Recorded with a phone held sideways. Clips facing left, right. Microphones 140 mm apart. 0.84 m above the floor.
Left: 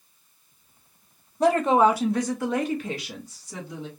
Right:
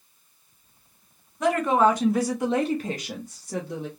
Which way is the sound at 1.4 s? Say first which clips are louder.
Left 2 dB; 35° left (ahead or behind).